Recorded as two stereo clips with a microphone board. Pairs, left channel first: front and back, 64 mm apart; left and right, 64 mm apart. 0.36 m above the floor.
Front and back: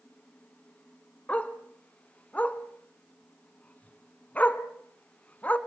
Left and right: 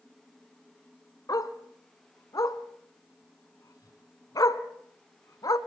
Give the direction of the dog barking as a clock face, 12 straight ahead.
10 o'clock.